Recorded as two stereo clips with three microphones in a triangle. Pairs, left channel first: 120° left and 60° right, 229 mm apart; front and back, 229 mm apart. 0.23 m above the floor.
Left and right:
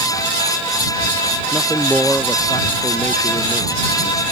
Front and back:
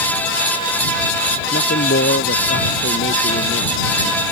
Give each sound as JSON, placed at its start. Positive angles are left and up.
{"t": 1.5, "sound": "a man speaking", "azimuth_deg": 30}